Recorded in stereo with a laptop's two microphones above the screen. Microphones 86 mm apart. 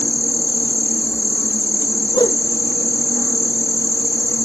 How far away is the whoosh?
About 1.0 m.